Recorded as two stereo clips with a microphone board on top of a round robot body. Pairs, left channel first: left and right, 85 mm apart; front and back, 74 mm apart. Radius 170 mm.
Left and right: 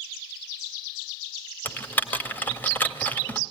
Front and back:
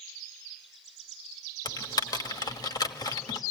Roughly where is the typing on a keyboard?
Ahead.